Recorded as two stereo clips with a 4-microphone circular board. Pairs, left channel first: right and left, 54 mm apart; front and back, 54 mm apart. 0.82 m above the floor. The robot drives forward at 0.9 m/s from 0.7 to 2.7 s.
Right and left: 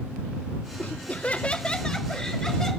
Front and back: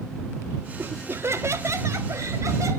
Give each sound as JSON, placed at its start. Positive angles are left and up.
{"t": 0.8, "sound": "laughter", "azimuth_deg": -135, "distance_m": 0.8}